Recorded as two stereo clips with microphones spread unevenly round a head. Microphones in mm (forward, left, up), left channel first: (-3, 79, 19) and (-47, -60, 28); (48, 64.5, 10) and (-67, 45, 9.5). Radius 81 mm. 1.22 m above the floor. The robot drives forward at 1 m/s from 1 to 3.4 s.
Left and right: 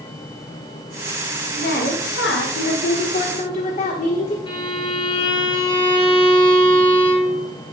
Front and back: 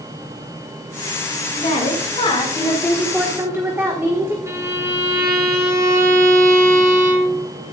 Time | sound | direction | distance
1.6 | a woman speaking | 35° left | 1.6 m
4.5 | a violin | 125° left | 3.5 m